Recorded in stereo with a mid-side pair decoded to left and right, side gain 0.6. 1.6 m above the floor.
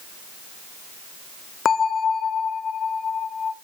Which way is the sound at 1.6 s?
40° left.